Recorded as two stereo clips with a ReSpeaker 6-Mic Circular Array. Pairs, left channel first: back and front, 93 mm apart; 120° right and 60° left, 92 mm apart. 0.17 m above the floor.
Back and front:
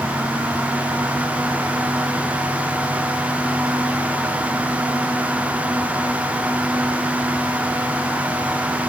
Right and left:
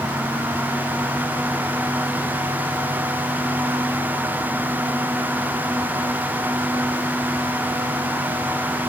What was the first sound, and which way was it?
Only background noise.